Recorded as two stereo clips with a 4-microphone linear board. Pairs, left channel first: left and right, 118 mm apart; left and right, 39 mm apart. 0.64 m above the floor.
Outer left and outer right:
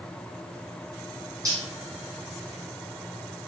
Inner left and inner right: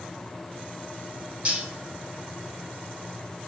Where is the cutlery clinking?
30° right (ahead or behind), 1.2 m.